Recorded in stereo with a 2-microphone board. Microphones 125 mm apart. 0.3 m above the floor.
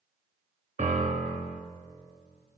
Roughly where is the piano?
Right.